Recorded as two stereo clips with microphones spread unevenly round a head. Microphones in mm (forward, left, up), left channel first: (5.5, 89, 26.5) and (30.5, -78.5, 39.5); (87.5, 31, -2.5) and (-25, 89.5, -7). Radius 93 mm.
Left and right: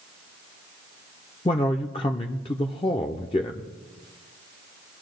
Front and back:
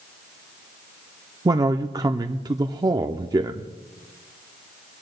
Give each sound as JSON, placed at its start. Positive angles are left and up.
{"t": 1.4, "sound": "a man speaking", "azimuth_deg": 140, "distance_m": 0.5}